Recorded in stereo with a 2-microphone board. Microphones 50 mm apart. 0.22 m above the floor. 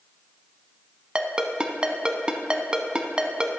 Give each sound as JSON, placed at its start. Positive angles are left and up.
{"t": 1.1, "sound": "a ringtone", "side_deg": -20, "distance_m": 0.5}